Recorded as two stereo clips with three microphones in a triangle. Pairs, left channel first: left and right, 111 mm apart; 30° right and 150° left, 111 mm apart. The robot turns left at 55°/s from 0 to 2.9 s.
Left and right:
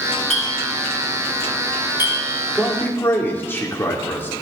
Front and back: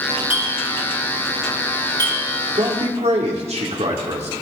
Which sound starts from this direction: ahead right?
A clink, at 0.3 s.